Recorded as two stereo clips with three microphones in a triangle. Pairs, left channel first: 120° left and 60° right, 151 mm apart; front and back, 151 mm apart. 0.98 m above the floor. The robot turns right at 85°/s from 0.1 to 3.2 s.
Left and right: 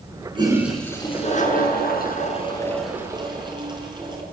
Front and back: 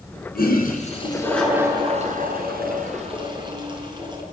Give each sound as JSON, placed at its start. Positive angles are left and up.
{"t": 0.3, "sound": "a toilet flushing", "azimuth_deg": -5, "distance_m": 5.0}